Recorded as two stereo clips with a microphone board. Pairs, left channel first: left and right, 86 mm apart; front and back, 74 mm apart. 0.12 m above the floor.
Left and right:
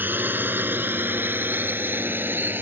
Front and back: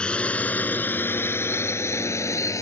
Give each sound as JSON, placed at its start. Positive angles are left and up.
{"t": 0.0, "sound": "a drone", "azimuth_deg": -60}